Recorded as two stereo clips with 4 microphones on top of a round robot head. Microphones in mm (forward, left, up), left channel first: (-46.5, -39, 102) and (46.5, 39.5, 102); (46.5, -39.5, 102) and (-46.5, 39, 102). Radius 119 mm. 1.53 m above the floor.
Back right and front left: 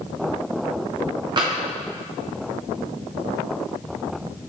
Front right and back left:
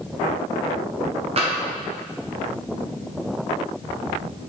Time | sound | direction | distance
1.4 | tapping | 95° left | 1.2 m